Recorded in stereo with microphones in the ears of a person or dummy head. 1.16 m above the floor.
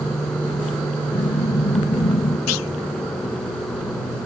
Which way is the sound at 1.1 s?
30° left (ahead or behind).